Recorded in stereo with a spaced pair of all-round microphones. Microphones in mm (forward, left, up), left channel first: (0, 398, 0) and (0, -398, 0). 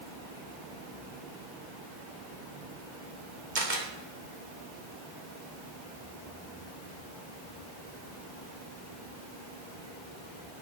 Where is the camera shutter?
70° right (ahead or behind), 2.5 m.